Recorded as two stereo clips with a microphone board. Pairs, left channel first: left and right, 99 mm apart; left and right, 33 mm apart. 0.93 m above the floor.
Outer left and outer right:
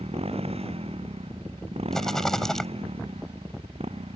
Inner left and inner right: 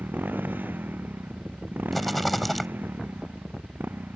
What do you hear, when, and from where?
0.0 s a motorcycle: 80° right
1.9 s a rattle: 5° left (ahead or behind)